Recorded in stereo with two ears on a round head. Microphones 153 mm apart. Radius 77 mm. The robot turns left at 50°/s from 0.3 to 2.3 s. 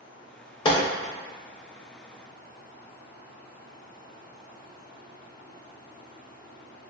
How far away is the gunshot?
About 0.5 m.